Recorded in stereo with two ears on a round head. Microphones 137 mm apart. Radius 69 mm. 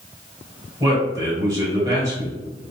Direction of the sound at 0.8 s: 20° right (ahead or behind).